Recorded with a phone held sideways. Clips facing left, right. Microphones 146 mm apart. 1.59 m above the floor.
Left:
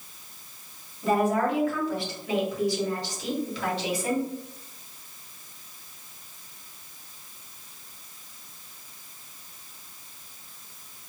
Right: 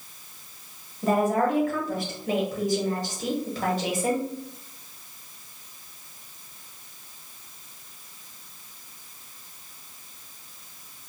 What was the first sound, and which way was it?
A woman speaking, 45° right (ahead or behind).